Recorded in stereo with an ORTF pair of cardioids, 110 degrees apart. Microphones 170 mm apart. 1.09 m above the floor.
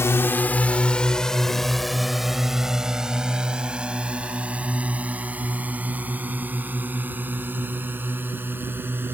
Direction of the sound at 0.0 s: 15° left.